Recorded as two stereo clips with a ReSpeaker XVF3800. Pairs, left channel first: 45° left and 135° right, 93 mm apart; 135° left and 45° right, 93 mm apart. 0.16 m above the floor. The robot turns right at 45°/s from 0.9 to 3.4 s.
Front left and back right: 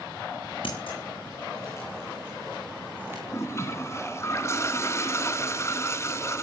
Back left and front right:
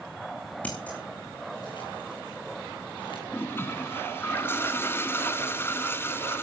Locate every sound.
0.6 s scissors: 60° left, 5 m; by 3.2 s 165° left, 5 m
3.3 s a toilet flushing: 80° left, 1.5 m; by 6.4 s 85° left, 1.5 m